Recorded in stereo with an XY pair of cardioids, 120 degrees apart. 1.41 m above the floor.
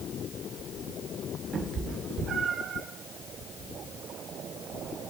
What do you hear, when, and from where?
1.5 s a cat meowing: 45° right, 3 m; by 2.8 s 60° right, 3.5 m